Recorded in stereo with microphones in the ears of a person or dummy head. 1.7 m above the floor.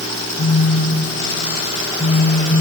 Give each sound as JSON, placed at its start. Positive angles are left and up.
{"t": 0.4, "sound": "a phone buzzing", "side_deg": 55, "distance_m": 1.1}